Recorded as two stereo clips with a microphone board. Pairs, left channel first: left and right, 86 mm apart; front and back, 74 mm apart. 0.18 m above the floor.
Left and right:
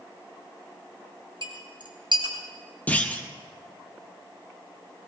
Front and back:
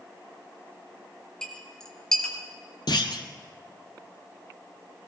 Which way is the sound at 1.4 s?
80° right.